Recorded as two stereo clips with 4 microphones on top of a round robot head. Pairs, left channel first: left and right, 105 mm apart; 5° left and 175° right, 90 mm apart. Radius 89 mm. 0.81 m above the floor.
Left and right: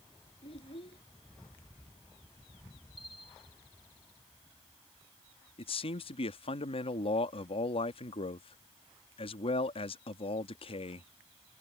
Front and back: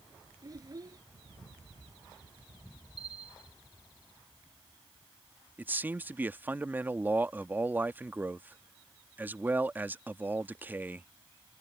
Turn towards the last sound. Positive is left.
turn(degrees=115)